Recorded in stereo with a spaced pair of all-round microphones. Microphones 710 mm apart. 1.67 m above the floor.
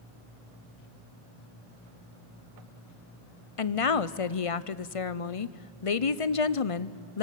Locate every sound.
3.6 s a woman speaking: 50° left (ahead or behind), 0.7 m